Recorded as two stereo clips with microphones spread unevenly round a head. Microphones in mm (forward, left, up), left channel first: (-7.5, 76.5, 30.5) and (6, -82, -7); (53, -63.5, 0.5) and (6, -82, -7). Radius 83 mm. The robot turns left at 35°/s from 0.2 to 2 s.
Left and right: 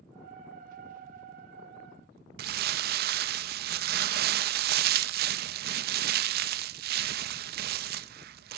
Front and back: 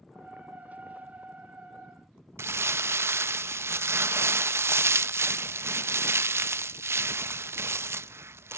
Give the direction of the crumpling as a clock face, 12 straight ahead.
4 o'clock.